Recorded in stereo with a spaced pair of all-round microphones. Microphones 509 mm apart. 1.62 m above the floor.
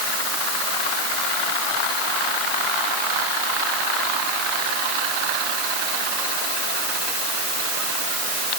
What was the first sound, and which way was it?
Only background noise.